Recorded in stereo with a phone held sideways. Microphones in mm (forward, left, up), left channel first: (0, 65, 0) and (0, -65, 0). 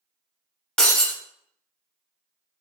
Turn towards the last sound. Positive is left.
turn(degrees=5)  # may be behind; listen again after turning